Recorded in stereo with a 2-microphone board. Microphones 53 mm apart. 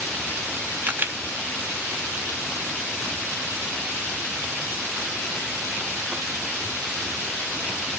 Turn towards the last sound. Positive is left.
turn(degrees=-35)  # may be behind; listen again after turning